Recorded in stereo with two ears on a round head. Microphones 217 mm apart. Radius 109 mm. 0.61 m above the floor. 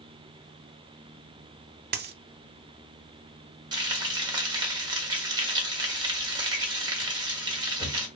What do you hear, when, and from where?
1.9 s a dropped coin: 45° right (ahead or behind), 0.6 m
3.7 s frying: 20° right (ahead or behind), 1.4 m